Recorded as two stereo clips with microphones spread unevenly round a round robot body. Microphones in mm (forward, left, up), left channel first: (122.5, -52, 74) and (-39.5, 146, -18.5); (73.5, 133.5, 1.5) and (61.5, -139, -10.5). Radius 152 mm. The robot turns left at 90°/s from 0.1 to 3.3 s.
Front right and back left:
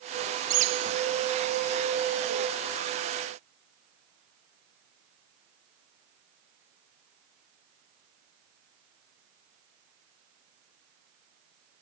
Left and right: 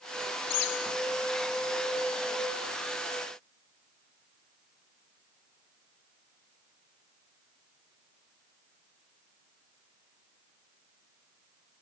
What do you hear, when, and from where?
0.5 s a bird: 130° left; by 0.9 s 90° left